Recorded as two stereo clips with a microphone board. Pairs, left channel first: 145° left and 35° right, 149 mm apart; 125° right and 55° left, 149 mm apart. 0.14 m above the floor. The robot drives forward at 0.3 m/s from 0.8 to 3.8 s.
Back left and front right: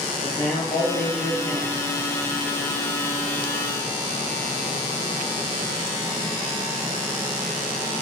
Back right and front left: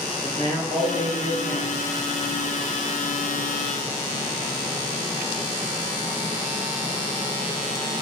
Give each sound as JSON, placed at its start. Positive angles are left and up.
{"t": 0.2, "sound": "a man speaking", "azimuth_deg": 90, "distance_m": 1.6}